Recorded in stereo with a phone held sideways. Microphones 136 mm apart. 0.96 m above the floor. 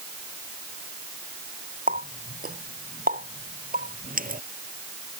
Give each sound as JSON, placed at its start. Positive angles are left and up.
{"t": 1.9, "sound": "a running tap", "side_deg": -85}